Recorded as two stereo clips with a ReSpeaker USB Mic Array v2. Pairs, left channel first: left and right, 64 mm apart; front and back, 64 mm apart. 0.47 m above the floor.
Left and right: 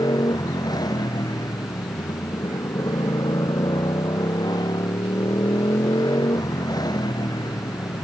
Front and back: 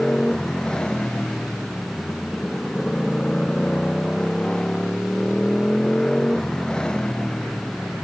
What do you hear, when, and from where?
0.0 s a motorcycle: 80° left